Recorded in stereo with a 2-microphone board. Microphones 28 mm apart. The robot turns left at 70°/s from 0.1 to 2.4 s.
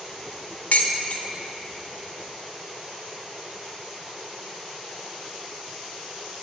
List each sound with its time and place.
0.7 s dishes clattering: 70° left (ahead or behind), 0.9 m; by 1.2 s 35° left (ahead or behind), 0.9 m